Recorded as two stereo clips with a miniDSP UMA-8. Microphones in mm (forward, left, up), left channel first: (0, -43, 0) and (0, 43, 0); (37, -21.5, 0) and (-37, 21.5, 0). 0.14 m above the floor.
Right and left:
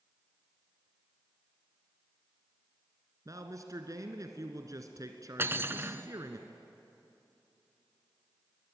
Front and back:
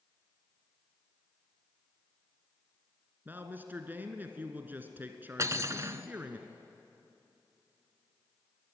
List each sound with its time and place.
3.2 s a man speaking: 95° left, 1.8 m
5.4 s cutlery clinking: 130° left, 0.9 m